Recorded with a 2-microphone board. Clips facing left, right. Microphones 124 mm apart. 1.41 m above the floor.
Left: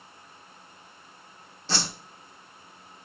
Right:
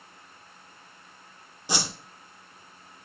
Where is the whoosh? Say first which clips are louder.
Right 1 dB; 15° right (ahead or behind), 0.9 m.